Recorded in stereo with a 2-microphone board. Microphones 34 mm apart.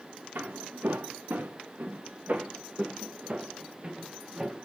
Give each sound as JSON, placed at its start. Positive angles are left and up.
{"t": 0.3, "sound": "footsteps", "side_deg": -75, "distance_m": 1.2}